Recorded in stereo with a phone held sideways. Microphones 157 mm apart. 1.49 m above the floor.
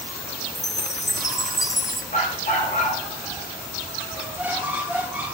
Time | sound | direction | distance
0.6 | a chime | 20° left (ahead or behind) | 0.6 m
2.1 | a dog barking | 55° left (ahead or behind) | 5 m
4.2 | a squeak | 10° right (ahead or behind) | 1.6 m